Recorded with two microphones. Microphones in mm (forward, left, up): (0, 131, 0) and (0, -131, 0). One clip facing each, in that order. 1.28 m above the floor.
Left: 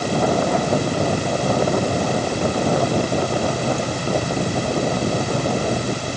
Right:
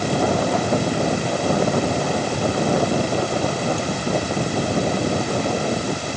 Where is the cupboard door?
No cupboard door in this recording.